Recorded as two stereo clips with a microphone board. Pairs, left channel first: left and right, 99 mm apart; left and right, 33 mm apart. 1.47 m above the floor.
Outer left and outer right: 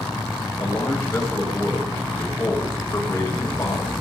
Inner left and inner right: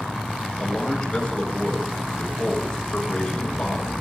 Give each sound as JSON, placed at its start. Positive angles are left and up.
{"t": 0.6, "sound": "a man speaking", "side_deg": 30, "distance_m": 8.5}